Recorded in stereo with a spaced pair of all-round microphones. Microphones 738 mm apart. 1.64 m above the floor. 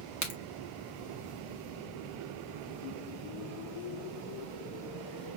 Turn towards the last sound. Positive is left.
turn(degrees=25)  # may be behind; listen again after turning